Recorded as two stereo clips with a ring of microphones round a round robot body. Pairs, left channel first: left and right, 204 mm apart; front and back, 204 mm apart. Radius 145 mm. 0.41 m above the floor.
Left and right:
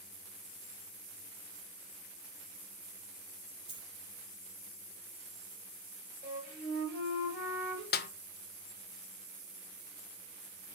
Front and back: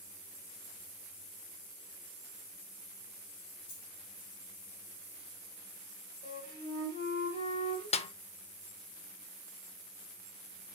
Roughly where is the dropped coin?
Ahead right.